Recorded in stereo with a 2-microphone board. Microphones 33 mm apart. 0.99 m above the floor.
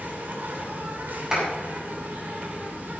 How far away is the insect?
About 2.5 m.